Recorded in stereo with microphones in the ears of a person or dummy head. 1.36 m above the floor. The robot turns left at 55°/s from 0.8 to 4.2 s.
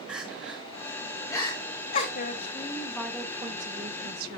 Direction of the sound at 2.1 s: 50° left.